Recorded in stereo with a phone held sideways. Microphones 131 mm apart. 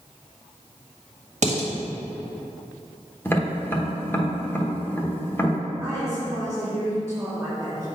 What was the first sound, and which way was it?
Dishes clattering, 65° right (ahead or behind).